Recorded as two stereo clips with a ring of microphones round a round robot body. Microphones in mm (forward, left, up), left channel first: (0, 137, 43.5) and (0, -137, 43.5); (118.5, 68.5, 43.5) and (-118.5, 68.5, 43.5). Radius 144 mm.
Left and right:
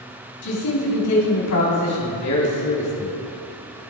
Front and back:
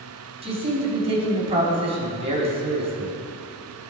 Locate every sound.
0.4 s a man speaking: 115° left, 3.5 m